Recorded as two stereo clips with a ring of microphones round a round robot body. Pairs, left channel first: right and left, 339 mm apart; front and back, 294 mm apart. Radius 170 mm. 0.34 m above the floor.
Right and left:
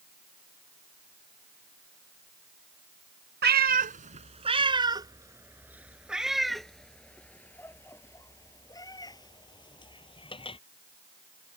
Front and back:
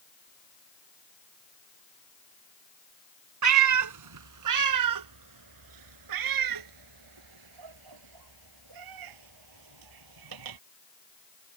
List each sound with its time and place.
3.4 s a cat meowing: 150° left; by 10.6 s 165° right